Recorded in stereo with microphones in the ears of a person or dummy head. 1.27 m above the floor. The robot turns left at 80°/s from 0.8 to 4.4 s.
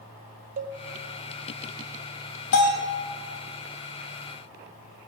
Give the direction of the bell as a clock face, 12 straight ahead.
9 o'clock.